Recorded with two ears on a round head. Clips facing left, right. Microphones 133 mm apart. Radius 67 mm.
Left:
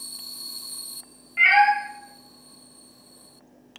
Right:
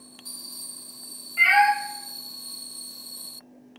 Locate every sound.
1.4 s a cat meowing: 5° left (ahead or behind), 0.5 m